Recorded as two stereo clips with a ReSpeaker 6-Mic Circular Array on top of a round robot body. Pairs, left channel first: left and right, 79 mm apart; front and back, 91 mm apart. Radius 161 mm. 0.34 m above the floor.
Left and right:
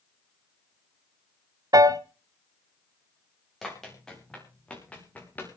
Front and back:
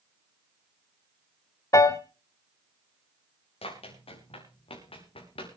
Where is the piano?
50° right, 1.2 m.